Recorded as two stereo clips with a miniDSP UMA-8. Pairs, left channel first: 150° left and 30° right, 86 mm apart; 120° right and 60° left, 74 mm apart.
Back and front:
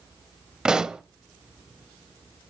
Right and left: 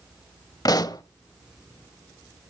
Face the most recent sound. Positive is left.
turn(degrees=-110)